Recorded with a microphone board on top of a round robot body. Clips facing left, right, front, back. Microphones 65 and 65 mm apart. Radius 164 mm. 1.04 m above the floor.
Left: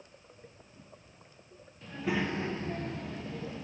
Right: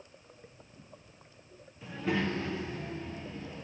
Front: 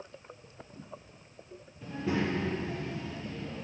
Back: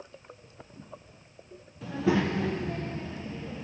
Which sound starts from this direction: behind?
A child speaking, at 1.8 s.